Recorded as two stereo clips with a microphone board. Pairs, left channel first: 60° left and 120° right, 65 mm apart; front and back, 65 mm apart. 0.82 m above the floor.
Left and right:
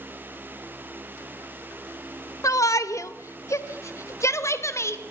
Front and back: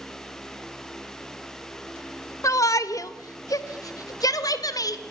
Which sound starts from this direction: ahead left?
A shout, at 2.4 s.